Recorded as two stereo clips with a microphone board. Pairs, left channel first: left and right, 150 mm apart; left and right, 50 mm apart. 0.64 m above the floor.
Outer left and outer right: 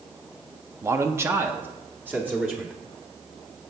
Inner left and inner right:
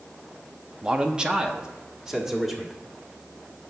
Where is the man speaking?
20° right (ahead or behind), 0.5 m; by 2.8 s 10° right (ahead or behind), 1.4 m.